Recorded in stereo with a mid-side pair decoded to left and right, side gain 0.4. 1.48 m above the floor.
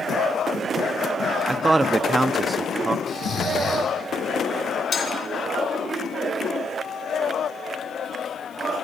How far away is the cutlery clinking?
About 4 m.